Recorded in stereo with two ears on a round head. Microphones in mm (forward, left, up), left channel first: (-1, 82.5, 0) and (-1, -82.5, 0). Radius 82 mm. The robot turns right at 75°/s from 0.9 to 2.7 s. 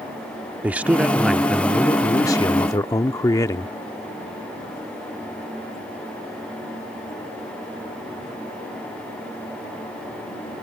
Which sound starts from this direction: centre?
A man speaking, at 0.6 s.